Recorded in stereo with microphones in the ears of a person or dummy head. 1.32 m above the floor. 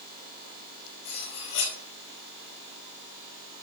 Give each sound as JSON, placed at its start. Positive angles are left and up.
{"t": 1.1, "sound": "cutlery clinking", "side_deg": 60, "distance_m": 5.0}